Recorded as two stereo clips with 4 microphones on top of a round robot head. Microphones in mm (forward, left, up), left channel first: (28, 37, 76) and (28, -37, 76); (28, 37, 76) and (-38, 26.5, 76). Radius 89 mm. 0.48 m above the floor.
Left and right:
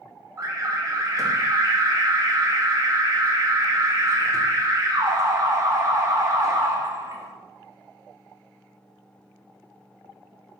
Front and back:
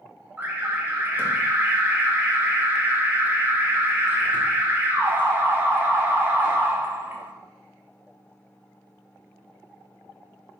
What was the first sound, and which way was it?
An alarm, 115° right.